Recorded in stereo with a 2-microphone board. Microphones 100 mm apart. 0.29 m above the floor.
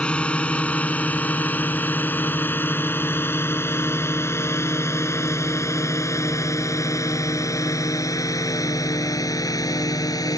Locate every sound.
0.0 s a drone: 10° left (ahead or behind); by 10.4 s 40° left (ahead or behind)